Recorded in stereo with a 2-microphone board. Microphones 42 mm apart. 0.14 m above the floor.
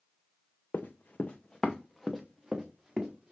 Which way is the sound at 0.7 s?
55° left (ahead or behind).